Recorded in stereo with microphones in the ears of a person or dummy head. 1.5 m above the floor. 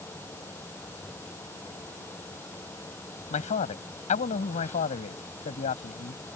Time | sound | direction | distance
0.0 | a fan | 15° left (ahead or behind) | ?
3.3 | a man speaking | 45° left (ahead or behind) | ?